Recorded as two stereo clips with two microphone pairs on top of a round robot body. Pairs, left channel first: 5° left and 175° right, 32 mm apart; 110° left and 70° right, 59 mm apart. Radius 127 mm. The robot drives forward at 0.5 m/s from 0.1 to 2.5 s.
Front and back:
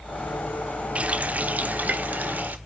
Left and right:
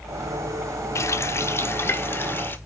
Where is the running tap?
140° left, 0.7 m; by 2.6 s 165° left, 1.4 m.